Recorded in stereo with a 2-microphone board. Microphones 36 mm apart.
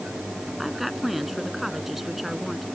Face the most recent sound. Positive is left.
turn(degrees=-5)  # may be behind; listen again after turning